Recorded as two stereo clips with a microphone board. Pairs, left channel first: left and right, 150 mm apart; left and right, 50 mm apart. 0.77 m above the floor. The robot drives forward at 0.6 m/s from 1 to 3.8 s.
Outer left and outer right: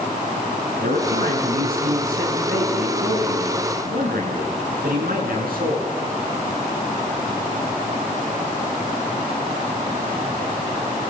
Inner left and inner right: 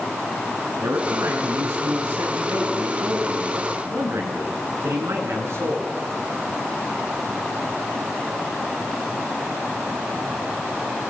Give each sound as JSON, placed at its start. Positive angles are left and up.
{"t": 0.8, "sound": "a man speaking", "side_deg": -85, "distance_m": 10.0}